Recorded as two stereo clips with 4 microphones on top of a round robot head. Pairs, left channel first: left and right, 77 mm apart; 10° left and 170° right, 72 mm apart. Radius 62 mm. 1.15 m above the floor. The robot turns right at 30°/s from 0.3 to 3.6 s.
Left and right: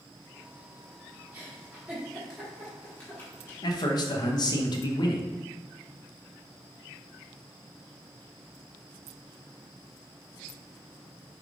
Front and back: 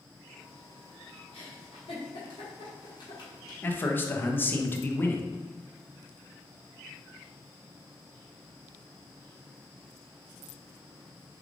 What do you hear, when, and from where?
1.3 s a giggle: 30° right, 1.2 m; by 3.6 s 40° left, 1.2 m
3.6 s a man speaking: 70° left, 0.7 m